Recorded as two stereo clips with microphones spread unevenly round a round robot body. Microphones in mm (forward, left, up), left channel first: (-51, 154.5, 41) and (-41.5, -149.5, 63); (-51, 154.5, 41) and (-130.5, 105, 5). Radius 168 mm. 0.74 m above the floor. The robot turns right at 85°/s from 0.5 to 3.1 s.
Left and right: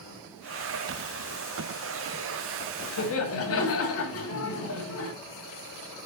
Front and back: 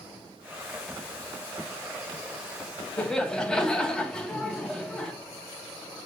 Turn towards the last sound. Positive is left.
turn(degrees=125)